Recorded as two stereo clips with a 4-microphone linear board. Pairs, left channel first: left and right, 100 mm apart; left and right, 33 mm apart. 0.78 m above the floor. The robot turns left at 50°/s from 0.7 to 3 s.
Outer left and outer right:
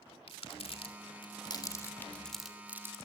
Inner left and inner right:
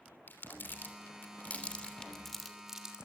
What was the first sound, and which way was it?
Crumpling, 75° left (ahead or behind).